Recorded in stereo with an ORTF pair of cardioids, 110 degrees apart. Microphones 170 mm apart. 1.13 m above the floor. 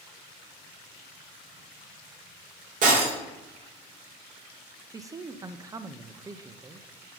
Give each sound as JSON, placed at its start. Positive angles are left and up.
{"t": 2.8, "sound": "breaking glass", "azimuth_deg": -50, "distance_m": 2.5}
{"t": 4.9, "sound": "a man speaking", "azimuth_deg": -20, "distance_m": 0.6}